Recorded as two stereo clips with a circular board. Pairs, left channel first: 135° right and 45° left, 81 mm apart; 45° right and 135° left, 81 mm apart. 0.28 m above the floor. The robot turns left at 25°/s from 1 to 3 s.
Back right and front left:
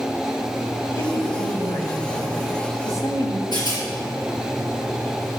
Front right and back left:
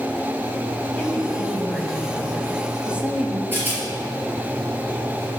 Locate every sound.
1.0 s a woman speaking: 105° right, 1.7 m; by 3.4 s 155° right, 1.7 m
3.5 s a rattle: 160° right, 4 m